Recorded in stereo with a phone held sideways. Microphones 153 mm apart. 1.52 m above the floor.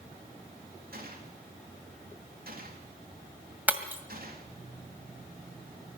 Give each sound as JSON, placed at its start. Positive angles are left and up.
{"t": 0.9, "sound": "a gunshot", "side_deg": -65, "distance_m": 3.5}
{"t": 3.7, "sound": "breaking glass", "side_deg": -10, "distance_m": 1.9}